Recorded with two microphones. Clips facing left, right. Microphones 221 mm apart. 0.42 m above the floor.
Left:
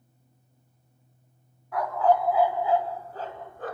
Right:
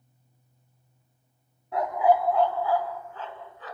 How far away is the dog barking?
About 1.4 m.